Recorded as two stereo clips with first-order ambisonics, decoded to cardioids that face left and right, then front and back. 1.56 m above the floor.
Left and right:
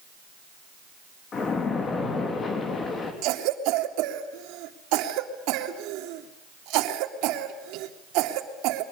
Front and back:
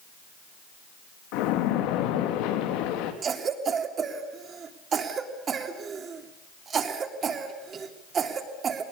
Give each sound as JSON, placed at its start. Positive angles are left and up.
{"t": 1.3, "sound": "a splash", "azimuth_deg": 25, "distance_m": 3.5}
{"t": 3.2, "sound": "a cough", "azimuth_deg": -115, "distance_m": 3.0}